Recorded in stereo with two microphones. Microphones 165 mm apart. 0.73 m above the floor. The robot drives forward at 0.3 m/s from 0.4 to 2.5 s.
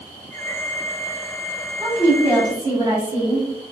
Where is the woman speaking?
15° right (ahead or behind), 0.8 m.